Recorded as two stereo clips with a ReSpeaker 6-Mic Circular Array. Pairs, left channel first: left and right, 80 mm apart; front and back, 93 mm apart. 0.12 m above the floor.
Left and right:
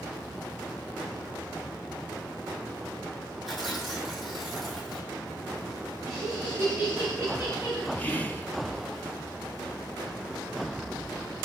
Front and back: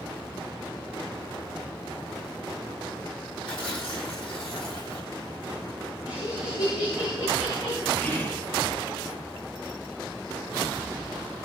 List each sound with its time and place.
3.5 s tearing paper: straight ahead, 3 m
6.1 s laughter: 35° right, 8 m
8.0 s whispering: 40° left, 1.7 m